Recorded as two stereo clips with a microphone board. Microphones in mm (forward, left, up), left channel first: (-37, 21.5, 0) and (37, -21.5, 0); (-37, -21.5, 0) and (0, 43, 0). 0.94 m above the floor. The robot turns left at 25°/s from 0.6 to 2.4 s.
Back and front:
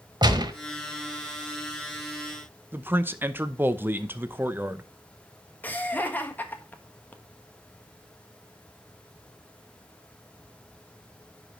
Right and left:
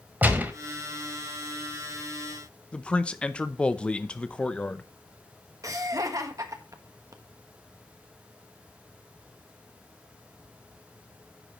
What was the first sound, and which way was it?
A gunshot, 5° right.